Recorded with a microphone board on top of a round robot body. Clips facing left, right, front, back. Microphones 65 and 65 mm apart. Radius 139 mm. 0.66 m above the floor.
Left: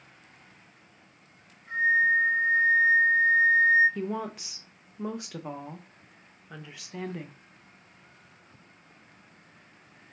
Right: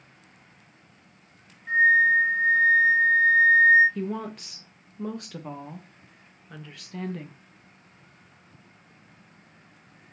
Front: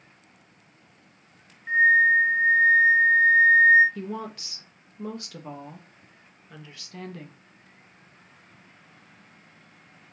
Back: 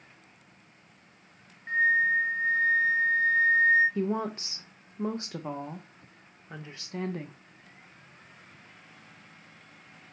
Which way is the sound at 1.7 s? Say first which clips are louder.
Right 4 dB, front 6 dB; 80° right.